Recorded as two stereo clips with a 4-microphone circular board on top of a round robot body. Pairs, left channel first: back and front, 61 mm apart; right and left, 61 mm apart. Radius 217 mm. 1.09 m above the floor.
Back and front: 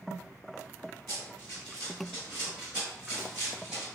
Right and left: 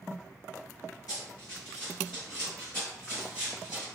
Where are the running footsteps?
110° right, 1.2 m; by 3.9 s 70° left, 1.5 m.